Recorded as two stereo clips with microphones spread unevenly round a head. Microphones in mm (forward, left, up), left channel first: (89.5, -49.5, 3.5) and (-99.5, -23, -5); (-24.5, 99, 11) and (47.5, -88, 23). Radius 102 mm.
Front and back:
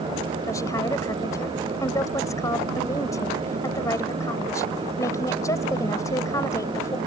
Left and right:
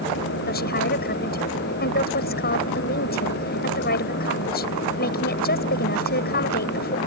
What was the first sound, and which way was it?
A woman speaking, 70° left.